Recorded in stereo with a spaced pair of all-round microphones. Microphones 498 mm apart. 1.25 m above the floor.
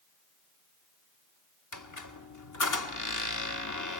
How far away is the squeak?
About 0.9 m.